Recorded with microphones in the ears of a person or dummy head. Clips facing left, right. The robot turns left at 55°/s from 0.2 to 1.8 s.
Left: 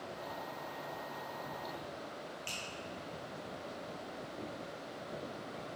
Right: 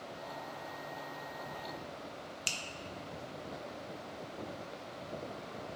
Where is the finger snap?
75° right (ahead or behind), 0.9 m.